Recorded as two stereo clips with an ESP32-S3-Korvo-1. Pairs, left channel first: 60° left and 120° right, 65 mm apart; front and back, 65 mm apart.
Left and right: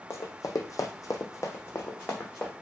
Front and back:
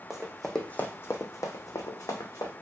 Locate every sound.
0.1 s running footsteps: 100° left, 0.6 m; by 2.5 s 5° right, 1.0 m